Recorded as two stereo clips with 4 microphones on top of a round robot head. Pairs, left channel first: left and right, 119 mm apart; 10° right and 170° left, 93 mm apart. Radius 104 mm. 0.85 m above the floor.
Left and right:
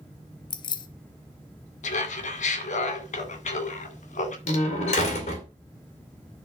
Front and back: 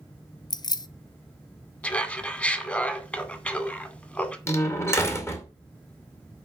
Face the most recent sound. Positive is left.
turn(degrees=50)